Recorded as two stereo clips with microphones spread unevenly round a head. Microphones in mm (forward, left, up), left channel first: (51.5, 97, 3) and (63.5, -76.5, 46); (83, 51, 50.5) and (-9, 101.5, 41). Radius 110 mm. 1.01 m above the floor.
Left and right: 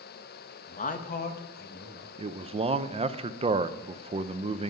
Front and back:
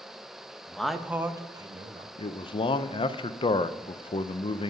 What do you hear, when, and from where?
0.7 s a man speaking: 55° left, 1.2 m; by 2.1 s 125° left, 1.3 m
2.2 s a man speaking: 25° right, 0.6 m